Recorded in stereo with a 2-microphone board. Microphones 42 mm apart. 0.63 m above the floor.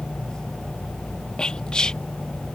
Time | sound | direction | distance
1.4 | whispering | 20° left (ahead or behind) | ?